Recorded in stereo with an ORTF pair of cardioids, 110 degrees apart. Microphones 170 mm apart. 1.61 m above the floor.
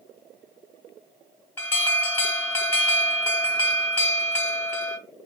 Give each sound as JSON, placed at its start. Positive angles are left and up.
{"t": 1.6, "sound": "an alarm", "azimuth_deg": 15, "distance_m": 1.2}